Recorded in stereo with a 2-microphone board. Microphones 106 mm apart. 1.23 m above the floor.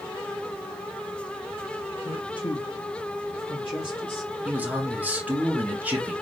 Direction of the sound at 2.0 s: 45° left (ahead or behind).